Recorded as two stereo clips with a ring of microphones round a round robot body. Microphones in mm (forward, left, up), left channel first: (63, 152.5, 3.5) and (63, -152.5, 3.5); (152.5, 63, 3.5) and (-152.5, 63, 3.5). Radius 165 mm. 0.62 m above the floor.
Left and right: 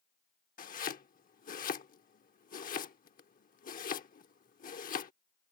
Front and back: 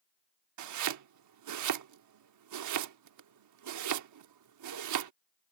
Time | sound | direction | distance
0.6 | chopping | 155° left | ?